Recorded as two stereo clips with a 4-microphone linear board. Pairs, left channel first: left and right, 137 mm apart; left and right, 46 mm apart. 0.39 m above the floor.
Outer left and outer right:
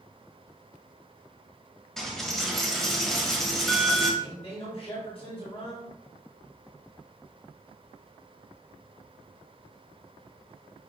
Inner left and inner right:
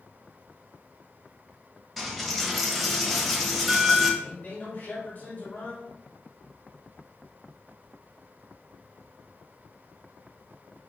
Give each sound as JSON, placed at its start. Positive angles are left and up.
{"t": 2.0, "sound": "a dropped coin", "side_deg": 0, "distance_m": 0.8}
{"t": 4.2, "sound": "a man speaking", "side_deg": 40, "distance_m": 1.4}